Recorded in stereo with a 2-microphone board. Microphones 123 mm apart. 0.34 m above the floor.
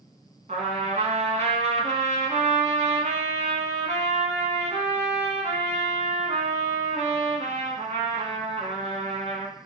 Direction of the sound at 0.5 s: 70° right (ahead or behind).